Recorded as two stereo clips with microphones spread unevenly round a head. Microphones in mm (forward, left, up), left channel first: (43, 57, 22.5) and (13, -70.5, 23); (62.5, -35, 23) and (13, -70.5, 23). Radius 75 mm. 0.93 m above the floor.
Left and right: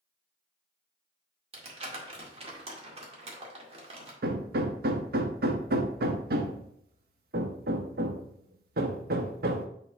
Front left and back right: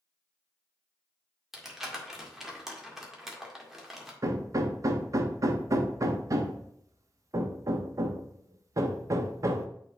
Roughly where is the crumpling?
Ahead right.